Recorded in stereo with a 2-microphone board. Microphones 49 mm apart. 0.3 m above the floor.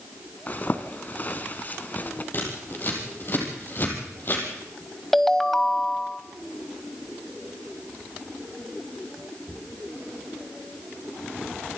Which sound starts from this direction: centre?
A ringtone, at 5.1 s.